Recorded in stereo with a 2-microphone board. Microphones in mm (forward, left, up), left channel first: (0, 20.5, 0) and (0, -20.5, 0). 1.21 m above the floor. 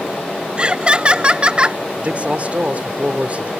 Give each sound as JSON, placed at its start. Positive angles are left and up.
{"t": 0.6, "sound": "laughter", "side_deg": -30}
{"t": 2.0, "sound": "a man speaking", "side_deg": -35}